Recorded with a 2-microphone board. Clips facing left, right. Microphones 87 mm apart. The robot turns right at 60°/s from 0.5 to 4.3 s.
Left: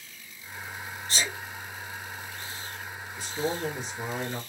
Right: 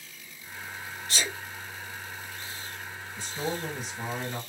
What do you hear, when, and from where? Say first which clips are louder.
1.1 s a sneeze: left 1 dB; 25° left (ahead or behind), 1.8 m
3.2 s a man speaking: left 2 dB; 50° right, 2.0 m; by 4.4 s 15° left, 2.0 m